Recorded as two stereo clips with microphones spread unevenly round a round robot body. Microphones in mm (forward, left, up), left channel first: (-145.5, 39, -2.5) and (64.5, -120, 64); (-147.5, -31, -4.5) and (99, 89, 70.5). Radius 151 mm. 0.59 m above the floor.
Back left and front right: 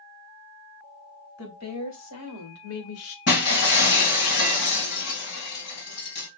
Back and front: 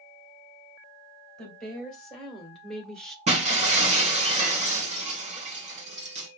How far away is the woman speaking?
About 3 m.